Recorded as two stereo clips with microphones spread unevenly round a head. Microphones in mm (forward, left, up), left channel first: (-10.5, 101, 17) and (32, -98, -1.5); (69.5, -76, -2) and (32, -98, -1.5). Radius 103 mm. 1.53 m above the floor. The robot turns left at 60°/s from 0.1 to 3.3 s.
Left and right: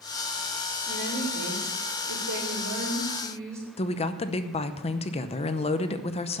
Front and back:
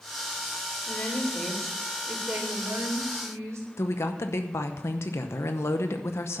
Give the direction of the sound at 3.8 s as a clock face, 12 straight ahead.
10 o'clock.